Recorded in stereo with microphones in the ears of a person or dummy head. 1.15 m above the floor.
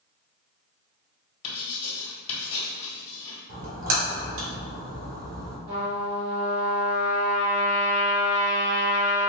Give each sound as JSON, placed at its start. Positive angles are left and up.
{"t": 1.4, "sound": "writing", "side_deg": 30, "distance_m": 1.4}
{"t": 3.5, "sound": "a splash", "side_deg": -75, "distance_m": 1.5}
{"t": 5.7, "sound": "a trumpet", "side_deg": -50, "distance_m": 1.5}